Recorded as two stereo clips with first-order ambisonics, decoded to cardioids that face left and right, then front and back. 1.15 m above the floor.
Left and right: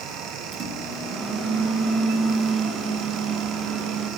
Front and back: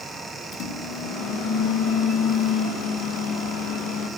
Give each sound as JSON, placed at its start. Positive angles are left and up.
{"t": 0.5, "sound": "a microwave", "azimuth_deg": -35, "distance_m": 1.6}